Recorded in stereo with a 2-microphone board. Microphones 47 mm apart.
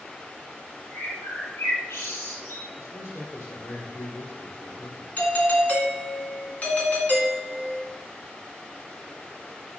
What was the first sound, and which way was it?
A bird, 70° left (ahead or behind).